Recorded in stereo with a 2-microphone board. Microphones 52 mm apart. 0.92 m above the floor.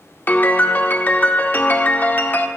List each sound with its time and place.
0.3 s a piano: 35° left (ahead or behind), 0.5 m